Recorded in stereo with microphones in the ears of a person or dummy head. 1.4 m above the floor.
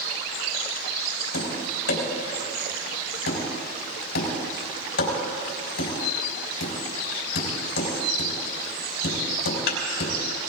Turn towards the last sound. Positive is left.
turn(degrees=70)  # may be behind; listen again after turning